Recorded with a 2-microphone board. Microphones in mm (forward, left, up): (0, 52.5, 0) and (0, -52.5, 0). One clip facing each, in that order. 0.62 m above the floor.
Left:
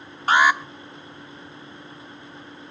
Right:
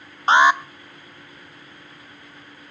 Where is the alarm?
25° right (ahead or behind), 0.8 m.